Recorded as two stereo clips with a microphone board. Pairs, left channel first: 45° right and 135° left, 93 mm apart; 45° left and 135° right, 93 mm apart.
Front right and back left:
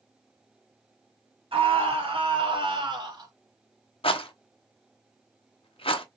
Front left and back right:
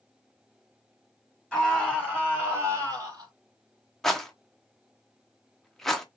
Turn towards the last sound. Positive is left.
turn(degrees=-40)